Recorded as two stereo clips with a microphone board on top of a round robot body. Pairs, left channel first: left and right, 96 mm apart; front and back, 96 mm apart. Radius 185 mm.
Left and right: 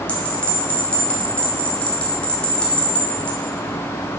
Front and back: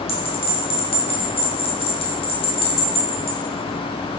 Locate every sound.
0.1 s a bell: 10° left, 2 m